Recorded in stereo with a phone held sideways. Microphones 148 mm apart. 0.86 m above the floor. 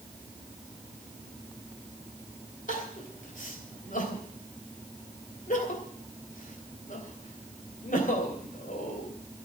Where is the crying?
70° left (ahead or behind), 3 m.